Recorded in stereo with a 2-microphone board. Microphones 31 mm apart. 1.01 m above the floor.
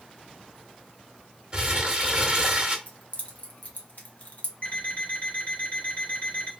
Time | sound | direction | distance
1.5 | crumpling | 30° right (ahead or behind) | 0.9 m
2.9 | keys jangling | 55° left (ahead or behind) | 0.9 m
4.6 | an alarm clock | 55° left (ahead or behind) | 1.7 m